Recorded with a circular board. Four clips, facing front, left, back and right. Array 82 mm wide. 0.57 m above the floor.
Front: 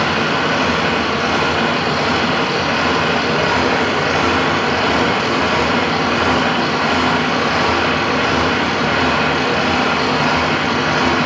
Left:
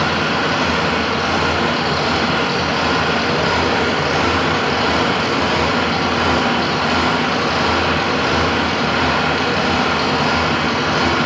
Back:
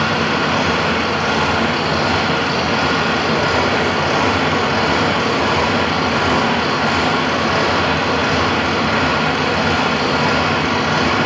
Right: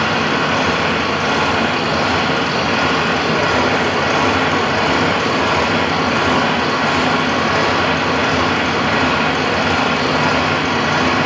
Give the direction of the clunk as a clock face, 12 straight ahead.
I don't hear a clunk.